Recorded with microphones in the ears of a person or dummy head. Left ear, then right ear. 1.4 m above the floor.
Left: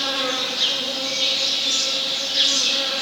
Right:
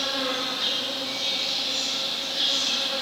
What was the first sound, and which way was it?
An insect, 80° left.